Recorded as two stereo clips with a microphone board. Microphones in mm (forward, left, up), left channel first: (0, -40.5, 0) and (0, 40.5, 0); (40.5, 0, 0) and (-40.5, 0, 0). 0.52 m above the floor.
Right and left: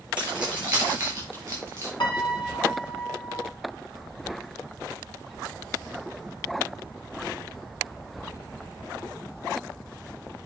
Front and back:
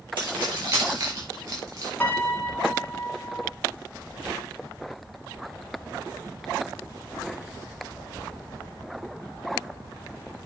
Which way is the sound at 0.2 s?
165° left.